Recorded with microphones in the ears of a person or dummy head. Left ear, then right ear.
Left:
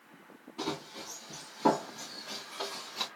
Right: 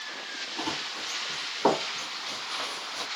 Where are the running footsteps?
40° right (ahead or behind), 3.5 m; by 3.1 s 55° right (ahead or behind), 2.5 m.